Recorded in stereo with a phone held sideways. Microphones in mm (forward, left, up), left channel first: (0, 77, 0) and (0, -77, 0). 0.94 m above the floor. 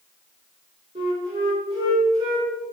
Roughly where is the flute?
Right.